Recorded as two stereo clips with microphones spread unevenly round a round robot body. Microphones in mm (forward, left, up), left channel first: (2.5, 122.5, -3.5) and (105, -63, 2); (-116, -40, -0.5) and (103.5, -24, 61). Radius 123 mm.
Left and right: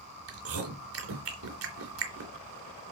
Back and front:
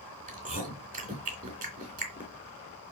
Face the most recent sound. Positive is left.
turn(degrees=-55)